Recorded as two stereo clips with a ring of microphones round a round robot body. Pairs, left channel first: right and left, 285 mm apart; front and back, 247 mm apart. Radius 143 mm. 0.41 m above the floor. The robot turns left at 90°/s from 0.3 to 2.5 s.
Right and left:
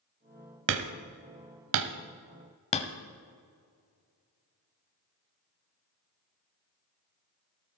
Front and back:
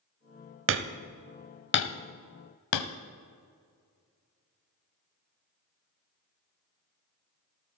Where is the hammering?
145° left, 0.7 m; by 2.9 s 20° right, 0.7 m.